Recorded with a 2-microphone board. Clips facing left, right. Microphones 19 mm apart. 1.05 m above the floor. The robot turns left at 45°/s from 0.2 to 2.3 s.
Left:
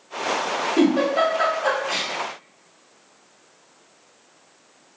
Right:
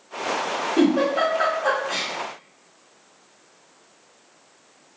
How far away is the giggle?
About 1.2 m.